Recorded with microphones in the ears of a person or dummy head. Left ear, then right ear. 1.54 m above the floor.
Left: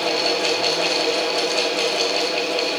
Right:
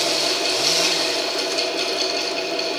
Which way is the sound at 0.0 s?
45° left (ahead or behind).